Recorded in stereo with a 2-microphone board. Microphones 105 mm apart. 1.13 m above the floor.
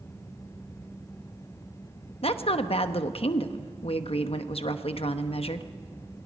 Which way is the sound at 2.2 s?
70° left (ahead or behind).